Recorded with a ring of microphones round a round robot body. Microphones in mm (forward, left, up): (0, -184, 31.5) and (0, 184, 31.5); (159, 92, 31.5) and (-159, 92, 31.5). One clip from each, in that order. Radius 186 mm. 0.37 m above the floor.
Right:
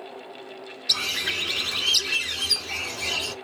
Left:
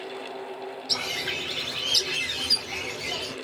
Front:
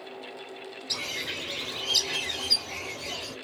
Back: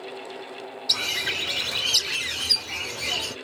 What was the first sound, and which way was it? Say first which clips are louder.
A bird: right 4 dB, back 8 dB; 145° right.